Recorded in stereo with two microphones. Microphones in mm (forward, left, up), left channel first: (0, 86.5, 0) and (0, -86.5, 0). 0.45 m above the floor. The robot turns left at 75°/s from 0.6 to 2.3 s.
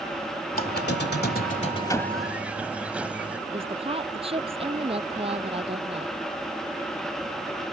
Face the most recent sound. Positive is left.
turn(degrees=-35)  # may be behind; listen again after turning